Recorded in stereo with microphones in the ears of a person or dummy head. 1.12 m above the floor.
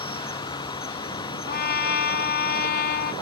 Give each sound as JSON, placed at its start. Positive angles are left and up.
{"t": 0.0, "sound": "an insect", "side_deg": 25}
{"t": 1.5, "sound": "a trumpet", "side_deg": 55}